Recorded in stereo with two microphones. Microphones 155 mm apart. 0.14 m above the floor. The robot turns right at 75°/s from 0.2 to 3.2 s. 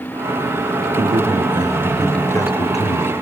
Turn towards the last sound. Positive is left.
turn(degrees=85)